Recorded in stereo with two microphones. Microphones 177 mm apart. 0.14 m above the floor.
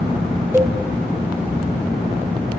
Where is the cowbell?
15° right (ahead or behind), 0.6 m.